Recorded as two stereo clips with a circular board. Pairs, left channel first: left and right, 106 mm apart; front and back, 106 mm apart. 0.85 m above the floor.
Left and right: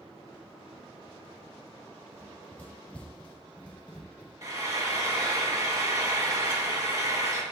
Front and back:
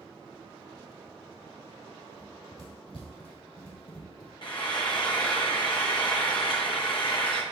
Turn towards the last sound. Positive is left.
turn(degrees=-35)